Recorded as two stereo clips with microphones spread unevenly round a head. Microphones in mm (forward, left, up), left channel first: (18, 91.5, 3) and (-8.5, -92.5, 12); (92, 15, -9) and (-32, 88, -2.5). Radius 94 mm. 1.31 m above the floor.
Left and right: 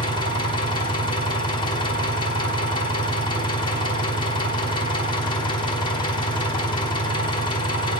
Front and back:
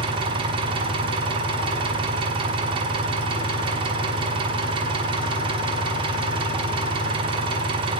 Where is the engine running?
135° left, 1.0 m.